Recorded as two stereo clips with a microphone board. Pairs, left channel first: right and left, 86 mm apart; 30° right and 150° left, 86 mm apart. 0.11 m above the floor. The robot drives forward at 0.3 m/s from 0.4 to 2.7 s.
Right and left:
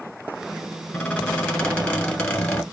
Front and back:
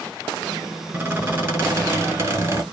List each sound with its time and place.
0.9 s a squeak: 155° right, 1.4 m; by 2.6 s 165° right, 1.7 m